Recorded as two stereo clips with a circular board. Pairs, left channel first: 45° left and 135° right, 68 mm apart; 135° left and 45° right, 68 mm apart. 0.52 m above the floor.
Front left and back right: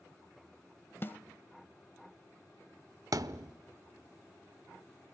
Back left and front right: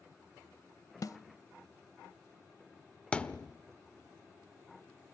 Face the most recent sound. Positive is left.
turn(degrees=-155)